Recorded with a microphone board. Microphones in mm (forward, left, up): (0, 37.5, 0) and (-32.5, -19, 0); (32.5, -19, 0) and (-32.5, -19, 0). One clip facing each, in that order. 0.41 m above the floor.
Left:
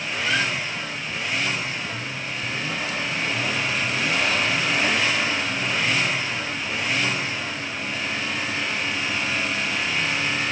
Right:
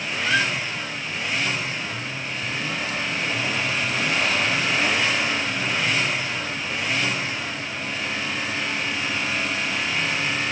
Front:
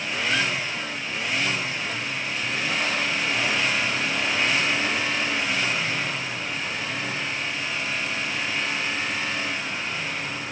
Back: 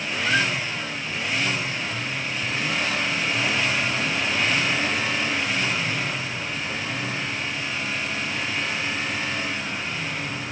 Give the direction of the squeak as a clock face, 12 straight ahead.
6 o'clock.